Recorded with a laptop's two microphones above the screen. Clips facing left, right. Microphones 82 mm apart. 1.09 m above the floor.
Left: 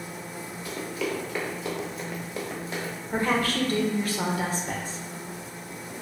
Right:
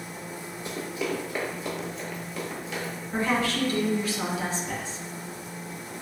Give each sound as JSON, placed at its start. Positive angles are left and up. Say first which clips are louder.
{"t": 0.7, "sound": "running footsteps", "louder": "even", "side_deg": -25, "distance_m": 1.1}
{"t": 3.1, "sound": "a woman speaking", "louder": "left 1 dB", "side_deg": 45, "distance_m": 0.6}